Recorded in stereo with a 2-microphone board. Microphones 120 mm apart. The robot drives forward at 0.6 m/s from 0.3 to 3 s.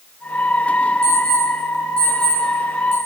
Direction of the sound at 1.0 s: 50° left (ahead or behind).